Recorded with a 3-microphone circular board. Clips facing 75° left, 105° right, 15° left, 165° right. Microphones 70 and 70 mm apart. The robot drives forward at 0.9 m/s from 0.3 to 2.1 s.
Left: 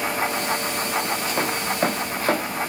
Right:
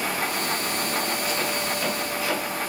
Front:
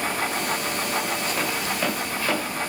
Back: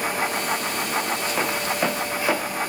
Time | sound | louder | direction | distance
1.4 | footsteps | left 4 dB, back 2 dB | 120° left | 1.4 m